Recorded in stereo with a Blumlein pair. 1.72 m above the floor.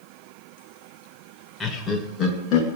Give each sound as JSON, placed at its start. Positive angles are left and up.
{"t": 1.6, "sound": "laughter", "azimuth_deg": 15, "distance_m": 1.8}